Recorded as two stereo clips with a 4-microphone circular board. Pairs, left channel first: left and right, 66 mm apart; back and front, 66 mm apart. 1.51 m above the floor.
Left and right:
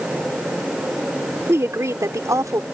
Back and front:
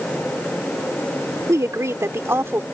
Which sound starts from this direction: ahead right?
A woman speaking, at 1.5 s.